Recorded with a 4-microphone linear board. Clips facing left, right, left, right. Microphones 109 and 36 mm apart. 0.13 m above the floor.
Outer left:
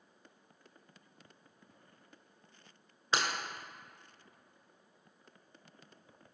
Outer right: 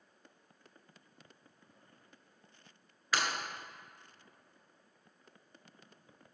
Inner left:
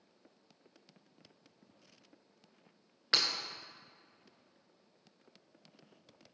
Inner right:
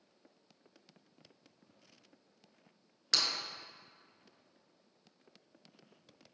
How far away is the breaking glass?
About 1.2 m.